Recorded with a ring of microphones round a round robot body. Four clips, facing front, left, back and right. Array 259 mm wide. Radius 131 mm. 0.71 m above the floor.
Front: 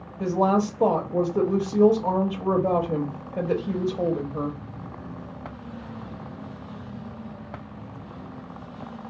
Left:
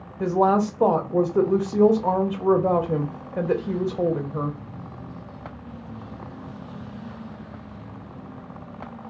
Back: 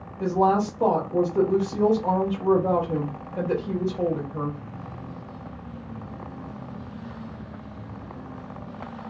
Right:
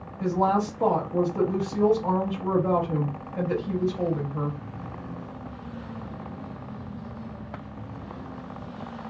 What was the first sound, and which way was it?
A woman speaking, 75° left.